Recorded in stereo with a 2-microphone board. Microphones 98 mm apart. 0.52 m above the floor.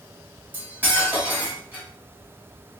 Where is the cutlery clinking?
20° right (ahead or behind), 1.3 m.